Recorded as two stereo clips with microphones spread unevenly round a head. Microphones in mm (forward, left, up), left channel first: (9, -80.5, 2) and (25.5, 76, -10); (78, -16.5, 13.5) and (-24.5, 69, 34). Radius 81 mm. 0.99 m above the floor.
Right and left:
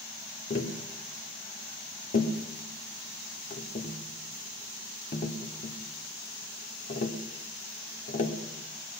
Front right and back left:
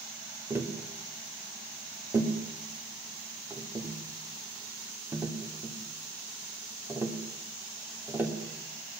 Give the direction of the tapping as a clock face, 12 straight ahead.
5 o'clock.